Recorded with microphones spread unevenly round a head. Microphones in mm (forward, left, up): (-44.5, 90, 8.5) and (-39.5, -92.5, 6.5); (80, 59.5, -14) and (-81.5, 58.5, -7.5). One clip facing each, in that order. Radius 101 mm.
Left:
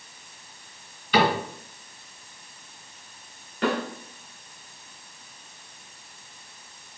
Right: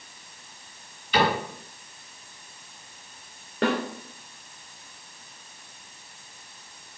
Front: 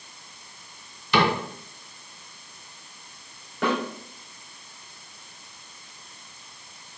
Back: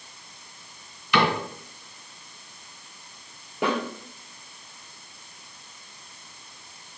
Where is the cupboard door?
45° left, 2.5 m.